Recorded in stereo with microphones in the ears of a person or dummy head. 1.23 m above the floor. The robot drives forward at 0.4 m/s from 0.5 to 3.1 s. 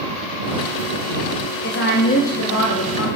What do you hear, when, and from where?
1.6 s a woman speaking: 55° left (ahead or behind), 0.7 m; by 3.1 s 75° left (ahead or behind), 0.6 m